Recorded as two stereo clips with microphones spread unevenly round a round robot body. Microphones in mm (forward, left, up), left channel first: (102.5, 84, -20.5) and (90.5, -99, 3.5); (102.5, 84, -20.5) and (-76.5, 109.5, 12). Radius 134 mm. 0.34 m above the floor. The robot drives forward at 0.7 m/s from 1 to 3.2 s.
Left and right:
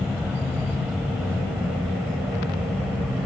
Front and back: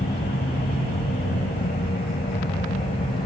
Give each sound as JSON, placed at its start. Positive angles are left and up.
{"t": 0.0, "sound": "an aircraft", "azimuth_deg": -10}